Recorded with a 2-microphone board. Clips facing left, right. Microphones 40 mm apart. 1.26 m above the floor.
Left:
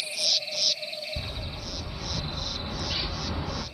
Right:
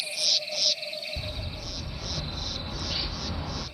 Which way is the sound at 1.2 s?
25° left (ahead or behind).